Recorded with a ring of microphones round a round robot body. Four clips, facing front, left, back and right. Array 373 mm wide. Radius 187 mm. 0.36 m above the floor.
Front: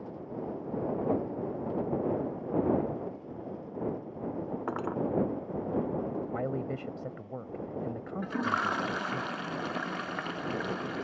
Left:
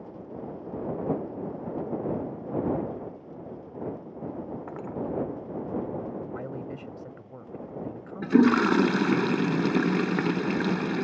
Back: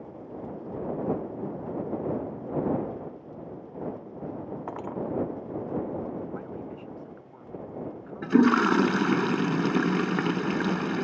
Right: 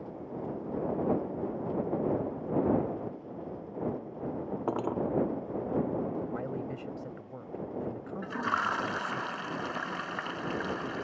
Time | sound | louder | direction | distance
4.7 | cutlery clinking | right 4 dB, front 1 dB | 70° right | ?
6.3 | a man speaking | even, front 4 dB | 5° left | ?
8.2 | a toilet flushing | left 12 dB, back 11 dB | 130° left | ?